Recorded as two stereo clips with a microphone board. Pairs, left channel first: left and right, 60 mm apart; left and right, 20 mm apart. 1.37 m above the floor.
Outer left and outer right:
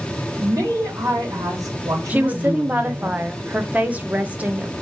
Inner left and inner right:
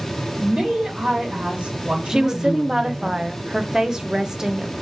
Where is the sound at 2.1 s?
25° right (ahead or behind), 0.8 m.